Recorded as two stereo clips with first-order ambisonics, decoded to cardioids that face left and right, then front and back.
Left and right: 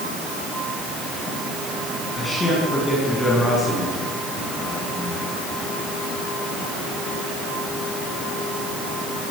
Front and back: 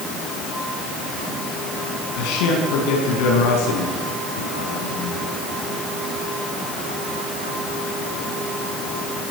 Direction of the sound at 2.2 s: 10° left.